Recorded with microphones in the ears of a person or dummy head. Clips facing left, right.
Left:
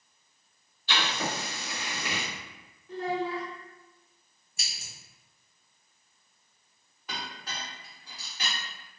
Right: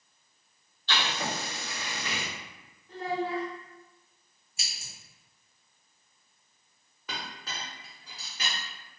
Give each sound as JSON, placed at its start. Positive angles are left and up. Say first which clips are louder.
{"t": 0.9, "sound": "writing", "louder": "left 1 dB", "side_deg": 10, "distance_m": 1.4}
{"t": 2.9, "sound": "a child speaking", "louder": "left 1 dB", "side_deg": 60, "distance_m": 0.7}
{"t": 4.6, "sound": "scissors", "louder": "left 1 dB", "side_deg": 45, "distance_m": 0.9}
{"t": 7.1, "sound": "a clink", "louder": "even", "side_deg": -60, "distance_m": 0.9}